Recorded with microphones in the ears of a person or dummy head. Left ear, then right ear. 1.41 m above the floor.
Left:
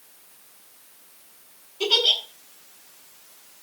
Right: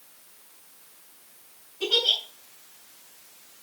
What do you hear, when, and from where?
1.8 s a giggle: 60° left (ahead or behind), 7.5 m